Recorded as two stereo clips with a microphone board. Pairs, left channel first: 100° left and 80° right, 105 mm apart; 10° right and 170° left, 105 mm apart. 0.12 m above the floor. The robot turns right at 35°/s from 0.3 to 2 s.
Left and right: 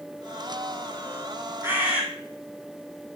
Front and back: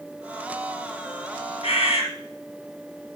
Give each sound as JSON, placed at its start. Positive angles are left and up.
{"t": 1.6, "sound": "a bird", "azimuth_deg": -15, "distance_m": 2.5}